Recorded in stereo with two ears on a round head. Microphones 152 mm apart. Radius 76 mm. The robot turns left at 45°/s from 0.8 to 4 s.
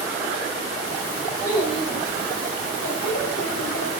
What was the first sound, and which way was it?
A child speaking, 165° left.